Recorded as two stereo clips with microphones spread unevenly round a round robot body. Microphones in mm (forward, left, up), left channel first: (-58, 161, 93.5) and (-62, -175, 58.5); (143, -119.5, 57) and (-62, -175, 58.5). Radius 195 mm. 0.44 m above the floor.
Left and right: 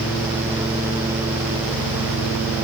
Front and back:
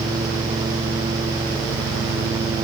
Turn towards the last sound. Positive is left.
No sound to turn to.